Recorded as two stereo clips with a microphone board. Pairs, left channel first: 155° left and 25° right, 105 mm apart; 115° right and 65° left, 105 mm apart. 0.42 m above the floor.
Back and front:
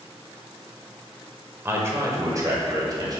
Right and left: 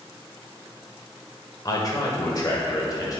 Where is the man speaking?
80° right, 1.7 m; by 3.2 s 65° right, 2.5 m.